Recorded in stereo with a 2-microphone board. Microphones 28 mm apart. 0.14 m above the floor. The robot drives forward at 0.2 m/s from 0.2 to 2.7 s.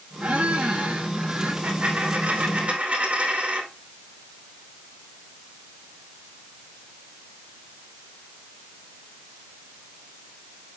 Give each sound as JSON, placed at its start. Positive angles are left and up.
{"t": 0.2, "sound": "a squeak", "side_deg": -55, "distance_m": 2.5}
{"t": 1.6, "sound": "a dropped coin", "side_deg": -40, "distance_m": 4.0}